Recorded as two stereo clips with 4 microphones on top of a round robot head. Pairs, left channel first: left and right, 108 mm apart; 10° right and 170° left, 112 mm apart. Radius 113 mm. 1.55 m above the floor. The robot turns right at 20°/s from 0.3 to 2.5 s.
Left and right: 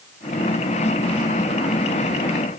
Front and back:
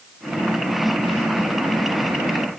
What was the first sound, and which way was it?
Only background noise.